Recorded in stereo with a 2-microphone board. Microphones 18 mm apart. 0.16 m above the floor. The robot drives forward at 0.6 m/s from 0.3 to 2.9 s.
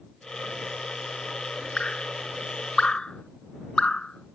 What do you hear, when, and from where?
1.8 s dripping: 65° left (ahead or behind); by 4.3 s 60° left (ahead or behind)